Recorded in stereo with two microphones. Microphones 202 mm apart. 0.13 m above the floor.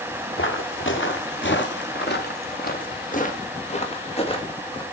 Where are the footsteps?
85° left, 2 m; by 4.8 s 25° left (ahead or behind), 2.5 m.